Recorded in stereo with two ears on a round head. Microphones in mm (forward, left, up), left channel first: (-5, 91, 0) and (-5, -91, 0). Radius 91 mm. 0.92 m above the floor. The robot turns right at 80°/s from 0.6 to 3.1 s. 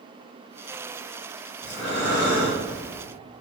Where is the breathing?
Straight behind, 1.8 m; by 3.0 s 65° right, 1.8 m.